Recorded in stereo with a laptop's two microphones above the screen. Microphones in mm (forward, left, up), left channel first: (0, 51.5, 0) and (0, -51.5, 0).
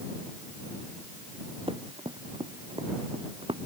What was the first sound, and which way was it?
Running footsteps, 60° right (ahead or behind).